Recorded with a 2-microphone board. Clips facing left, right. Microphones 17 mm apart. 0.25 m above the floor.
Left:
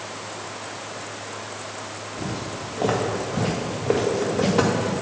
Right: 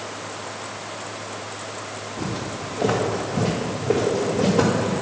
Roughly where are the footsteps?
Centre.